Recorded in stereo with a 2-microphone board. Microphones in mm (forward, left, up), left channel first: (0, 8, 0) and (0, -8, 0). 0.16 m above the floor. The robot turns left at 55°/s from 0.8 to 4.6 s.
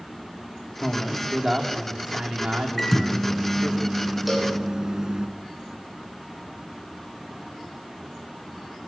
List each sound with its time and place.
0.8 s a man speaking: 10° left, 7.5 m; by 3.8 s 150° right, 7.5 m
2.8 s a microwave: 20° left, 1.6 m; by 5.3 s 80° right, 1.6 m
4.3 s a cowbell: centre (ahead or behind), 9 m; by 4.6 s 20° right (ahead or behind), 9 m